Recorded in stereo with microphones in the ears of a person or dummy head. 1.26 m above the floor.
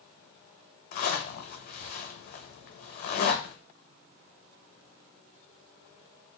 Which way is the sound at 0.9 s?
55° left (ahead or behind).